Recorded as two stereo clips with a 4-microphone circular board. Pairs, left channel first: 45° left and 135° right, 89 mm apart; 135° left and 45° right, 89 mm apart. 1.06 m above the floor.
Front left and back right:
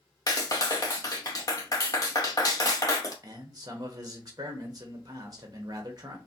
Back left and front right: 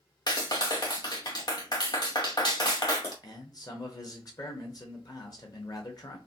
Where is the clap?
95° left, 0.9 m.